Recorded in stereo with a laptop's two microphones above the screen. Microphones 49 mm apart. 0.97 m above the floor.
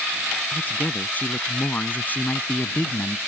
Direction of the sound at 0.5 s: 35° left (ahead or behind).